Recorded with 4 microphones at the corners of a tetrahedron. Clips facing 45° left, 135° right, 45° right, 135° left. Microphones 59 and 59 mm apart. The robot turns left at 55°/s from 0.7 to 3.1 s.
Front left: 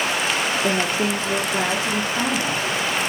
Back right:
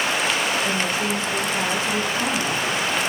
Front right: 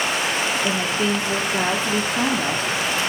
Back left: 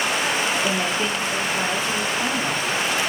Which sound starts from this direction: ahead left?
A woman speaking, at 0.6 s.